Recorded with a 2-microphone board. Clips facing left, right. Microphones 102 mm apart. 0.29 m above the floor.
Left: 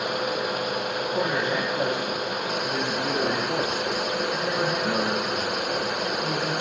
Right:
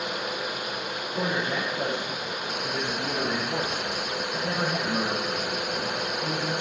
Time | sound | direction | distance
1.1 | a man speaking | 75° left (ahead or behind) | 7 m